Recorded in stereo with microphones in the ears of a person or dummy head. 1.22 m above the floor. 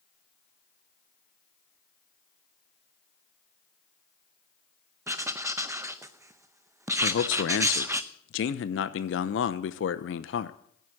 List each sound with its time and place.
5.1 s writing: 15° right (ahead or behind), 0.6 m
7.0 s a man speaking: 60° left (ahead or behind), 0.8 m